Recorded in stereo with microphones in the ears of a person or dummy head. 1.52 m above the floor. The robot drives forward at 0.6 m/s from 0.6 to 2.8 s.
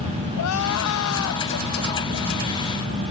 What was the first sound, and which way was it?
Crying, 80° left.